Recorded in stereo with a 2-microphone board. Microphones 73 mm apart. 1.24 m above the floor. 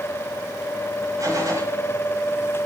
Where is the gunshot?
50° right (ahead or behind), 6.5 m.